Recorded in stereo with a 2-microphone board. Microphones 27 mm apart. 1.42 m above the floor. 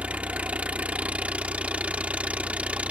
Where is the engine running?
65° right (ahead or behind).